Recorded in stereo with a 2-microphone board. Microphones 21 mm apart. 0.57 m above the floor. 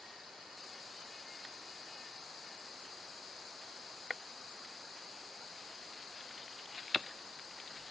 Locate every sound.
Only background noise.